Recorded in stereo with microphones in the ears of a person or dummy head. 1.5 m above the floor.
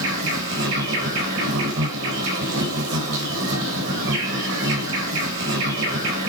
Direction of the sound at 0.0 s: 65° right (ahead or behind).